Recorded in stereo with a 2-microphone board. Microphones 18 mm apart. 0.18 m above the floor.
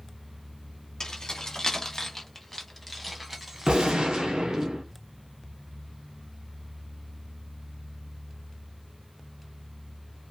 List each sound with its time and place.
1.0 s keys jangling: 40° left (ahead or behind), 1.3 m; by 4.7 s 35° right (ahead or behind), 1.5 m
3.7 s a gunshot: 60° right (ahead or behind), 1.5 m